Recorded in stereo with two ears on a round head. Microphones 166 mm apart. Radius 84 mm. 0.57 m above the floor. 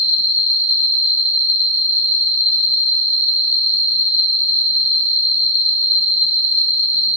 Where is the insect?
70° right (ahead or behind), 1.5 m.